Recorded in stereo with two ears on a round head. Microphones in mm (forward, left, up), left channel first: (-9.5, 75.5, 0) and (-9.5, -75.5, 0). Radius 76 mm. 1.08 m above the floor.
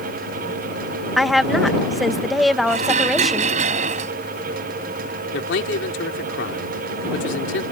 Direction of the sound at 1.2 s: Centre (ahead or behind).